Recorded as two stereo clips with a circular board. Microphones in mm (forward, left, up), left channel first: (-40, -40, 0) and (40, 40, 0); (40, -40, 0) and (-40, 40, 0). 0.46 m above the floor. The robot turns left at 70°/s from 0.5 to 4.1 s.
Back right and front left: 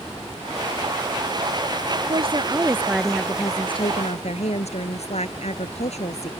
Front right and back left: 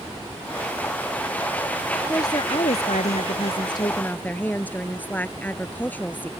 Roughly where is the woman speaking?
Ahead.